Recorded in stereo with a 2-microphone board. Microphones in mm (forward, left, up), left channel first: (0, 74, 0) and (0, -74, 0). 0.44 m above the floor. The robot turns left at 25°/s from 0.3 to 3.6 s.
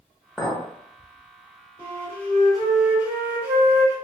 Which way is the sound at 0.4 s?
Centre (ahead or behind).